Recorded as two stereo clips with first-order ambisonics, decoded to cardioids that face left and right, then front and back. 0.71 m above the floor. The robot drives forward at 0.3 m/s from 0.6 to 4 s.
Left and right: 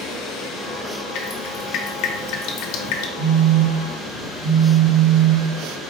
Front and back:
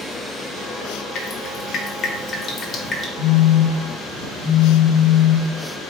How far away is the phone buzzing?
About 1.8 m.